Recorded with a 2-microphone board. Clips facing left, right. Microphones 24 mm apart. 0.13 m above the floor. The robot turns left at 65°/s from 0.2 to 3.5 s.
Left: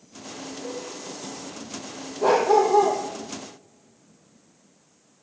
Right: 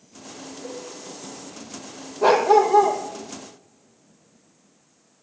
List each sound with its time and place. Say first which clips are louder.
0.6 s a cowbell: left 1 dB; 15° right (ahead or behind), 5.5 m; by 0.8 s 5° right (ahead or behind), 5.5 m
2.2 s a dog barking: right 2 dB; 140° right, 1.8 m; by 3.0 s 170° left, 1.8 m